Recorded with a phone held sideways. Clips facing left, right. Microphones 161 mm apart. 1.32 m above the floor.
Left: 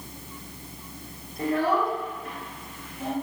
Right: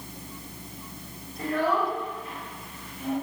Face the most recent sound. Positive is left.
turn(degrees=75)  # may be behind; listen again after turning